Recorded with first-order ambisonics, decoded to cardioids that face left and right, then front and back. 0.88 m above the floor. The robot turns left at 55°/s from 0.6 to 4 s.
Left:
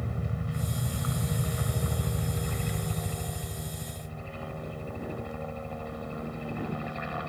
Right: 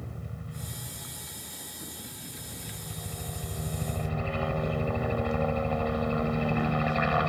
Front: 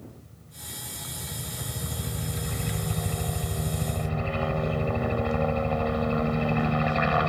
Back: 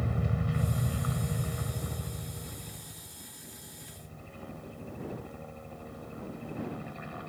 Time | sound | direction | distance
0.0 | a helicopter | 155° left | ?